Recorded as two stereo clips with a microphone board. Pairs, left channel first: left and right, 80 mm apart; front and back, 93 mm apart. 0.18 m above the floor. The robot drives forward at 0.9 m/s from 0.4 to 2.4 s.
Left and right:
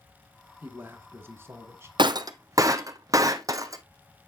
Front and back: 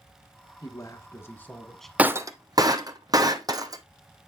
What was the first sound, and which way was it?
A man speaking, 30° right.